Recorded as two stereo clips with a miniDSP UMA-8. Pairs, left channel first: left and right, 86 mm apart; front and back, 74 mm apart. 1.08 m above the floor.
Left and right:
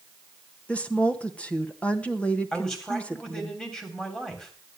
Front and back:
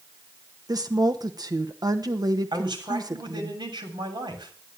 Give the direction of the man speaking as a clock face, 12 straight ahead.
6 o'clock.